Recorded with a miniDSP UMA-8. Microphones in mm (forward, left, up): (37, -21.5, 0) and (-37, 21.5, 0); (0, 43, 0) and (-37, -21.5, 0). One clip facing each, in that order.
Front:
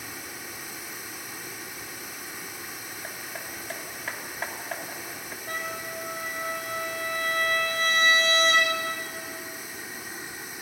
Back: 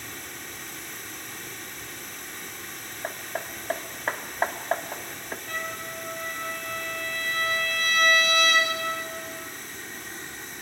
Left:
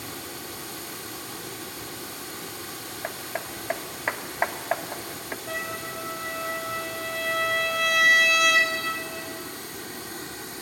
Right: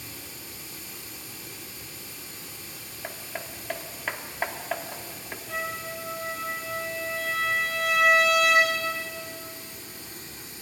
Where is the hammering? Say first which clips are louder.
Back 8 dB, left 4 dB; 120° left, 1.1 m.